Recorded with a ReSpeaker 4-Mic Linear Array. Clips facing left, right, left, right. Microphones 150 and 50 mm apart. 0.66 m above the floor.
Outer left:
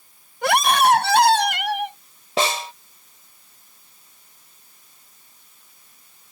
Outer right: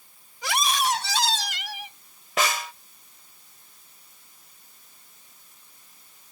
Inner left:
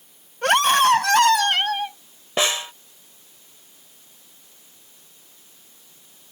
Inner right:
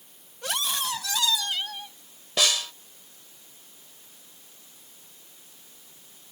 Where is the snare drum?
30° left (ahead or behind).